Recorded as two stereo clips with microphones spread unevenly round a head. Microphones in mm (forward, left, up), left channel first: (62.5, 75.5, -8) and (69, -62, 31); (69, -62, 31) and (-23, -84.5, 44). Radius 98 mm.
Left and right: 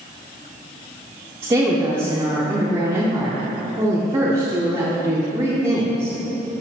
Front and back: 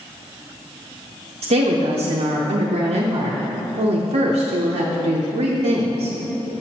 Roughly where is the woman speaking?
Behind.